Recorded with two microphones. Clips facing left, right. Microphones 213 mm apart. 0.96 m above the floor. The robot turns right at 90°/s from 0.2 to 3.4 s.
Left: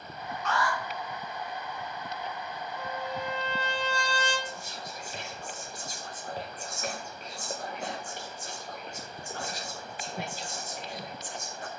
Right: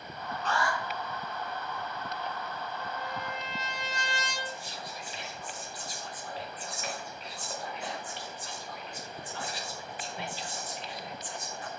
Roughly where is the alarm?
Ahead right.